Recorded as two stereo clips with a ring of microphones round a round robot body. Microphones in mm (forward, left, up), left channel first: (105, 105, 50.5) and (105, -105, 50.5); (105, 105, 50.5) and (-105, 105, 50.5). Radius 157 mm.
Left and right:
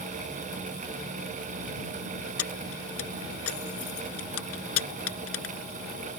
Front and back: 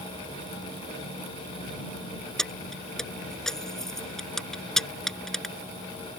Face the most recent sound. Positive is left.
turn(degrees=90)